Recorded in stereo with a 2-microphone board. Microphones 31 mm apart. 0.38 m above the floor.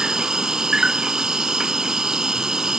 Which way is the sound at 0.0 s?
25° right (ahead or behind).